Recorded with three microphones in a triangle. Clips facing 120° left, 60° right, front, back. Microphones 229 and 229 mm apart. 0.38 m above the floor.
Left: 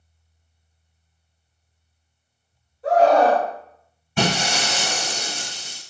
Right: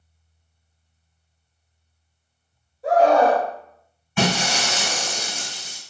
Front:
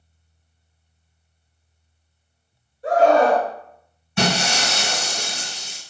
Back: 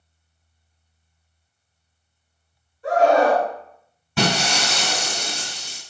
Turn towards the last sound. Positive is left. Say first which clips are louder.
# even, even
turn(degrees=170)